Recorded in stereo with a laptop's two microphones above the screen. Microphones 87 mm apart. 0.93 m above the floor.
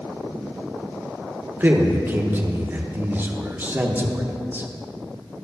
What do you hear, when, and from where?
1.6 s a man speaking: 25° right (ahead or behind), 0.7 m